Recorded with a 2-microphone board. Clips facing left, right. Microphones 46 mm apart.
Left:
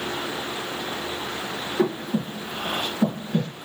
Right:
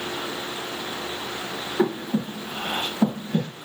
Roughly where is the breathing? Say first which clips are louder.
Right 1 dB; centre.